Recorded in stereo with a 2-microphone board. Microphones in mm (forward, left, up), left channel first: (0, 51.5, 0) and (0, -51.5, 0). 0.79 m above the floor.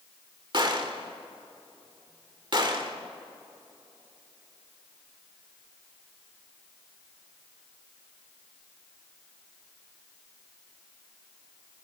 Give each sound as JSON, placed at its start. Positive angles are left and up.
{"t": 0.5, "sound": "a gunshot", "side_deg": -50, "distance_m": 1.9}